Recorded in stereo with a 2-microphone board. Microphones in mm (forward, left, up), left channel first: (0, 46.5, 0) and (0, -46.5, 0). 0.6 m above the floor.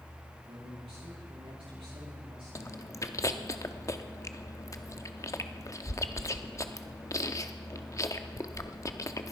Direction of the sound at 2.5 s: 35° left (ahead or behind).